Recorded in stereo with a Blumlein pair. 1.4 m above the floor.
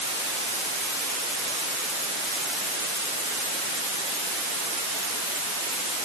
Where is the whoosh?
No whoosh in this recording.